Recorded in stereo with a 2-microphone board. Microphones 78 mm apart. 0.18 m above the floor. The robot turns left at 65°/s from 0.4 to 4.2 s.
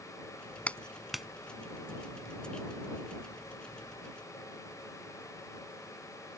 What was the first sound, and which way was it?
A clap, 20° left (ahead or behind).